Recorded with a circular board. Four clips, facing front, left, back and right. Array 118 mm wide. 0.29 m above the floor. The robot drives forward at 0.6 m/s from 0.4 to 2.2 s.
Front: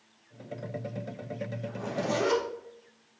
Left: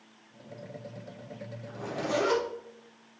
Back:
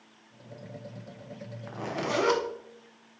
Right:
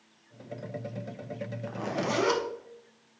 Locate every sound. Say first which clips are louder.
1.7 s a zipper: even, back 1 dB; 135° right, 0.6 m; by 2.4 s 150° right, 0.9 m